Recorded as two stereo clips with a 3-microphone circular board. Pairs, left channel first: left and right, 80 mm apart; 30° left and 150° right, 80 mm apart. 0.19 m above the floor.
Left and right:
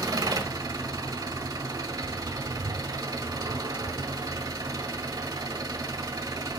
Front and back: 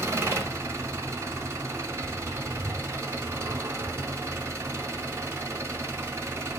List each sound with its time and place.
0.0 s an engine running: 100° right, 0.7 m